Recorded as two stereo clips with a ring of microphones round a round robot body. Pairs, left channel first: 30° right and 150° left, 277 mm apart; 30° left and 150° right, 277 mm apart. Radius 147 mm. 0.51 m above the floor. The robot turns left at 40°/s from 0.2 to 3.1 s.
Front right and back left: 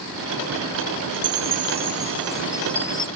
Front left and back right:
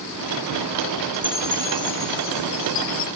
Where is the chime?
120° left; by 3.1 s 40° left.